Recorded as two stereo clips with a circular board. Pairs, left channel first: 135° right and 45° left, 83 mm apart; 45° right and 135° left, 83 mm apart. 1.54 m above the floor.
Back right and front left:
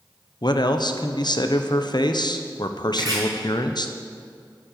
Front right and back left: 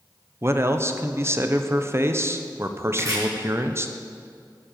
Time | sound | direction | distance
0.4 | a man speaking | 165° right | 0.9 m
2.9 | chopping | 85° left | 5.5 m